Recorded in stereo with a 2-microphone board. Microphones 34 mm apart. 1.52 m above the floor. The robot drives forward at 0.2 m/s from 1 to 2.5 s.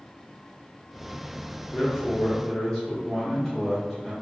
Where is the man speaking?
10° left (ahead or behind), 0.7 m.